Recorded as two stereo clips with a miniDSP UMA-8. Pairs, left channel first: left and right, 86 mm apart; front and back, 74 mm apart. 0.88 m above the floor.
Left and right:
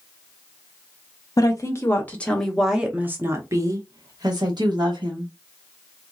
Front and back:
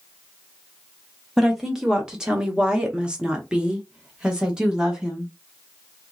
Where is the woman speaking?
95° left, 1.0 m; by 5.3 s 100° right, 1.7 m.